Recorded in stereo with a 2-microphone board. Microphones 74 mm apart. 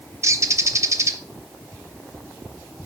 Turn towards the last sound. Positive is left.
turn(degrees=-45)  # may be behind; listen again after turning